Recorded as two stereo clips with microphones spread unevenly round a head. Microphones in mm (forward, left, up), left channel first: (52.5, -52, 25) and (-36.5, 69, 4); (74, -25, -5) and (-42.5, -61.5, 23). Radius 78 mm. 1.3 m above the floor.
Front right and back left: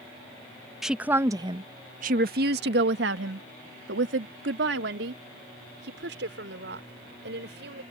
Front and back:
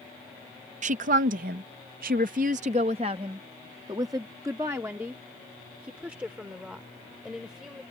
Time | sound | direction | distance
0.8 | a woman speaking | 145° right | ?